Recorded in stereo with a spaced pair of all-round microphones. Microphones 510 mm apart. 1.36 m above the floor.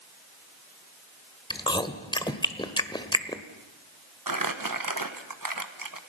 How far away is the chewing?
About 1.3 m.